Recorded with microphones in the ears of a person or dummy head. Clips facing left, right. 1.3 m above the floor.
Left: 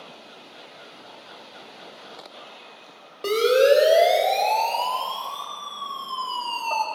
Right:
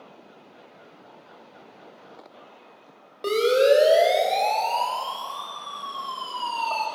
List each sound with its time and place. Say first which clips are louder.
3.2 s a siren: left 1 dB; 5° left (ahead or behind), 4.5 m; by 6.8 s 10° left (ahead or behind), 2.5 m